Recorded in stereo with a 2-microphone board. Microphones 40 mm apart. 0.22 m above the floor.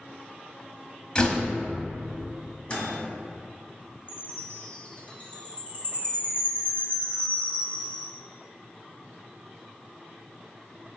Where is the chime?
40° left (ahead or behind), 1.9 m.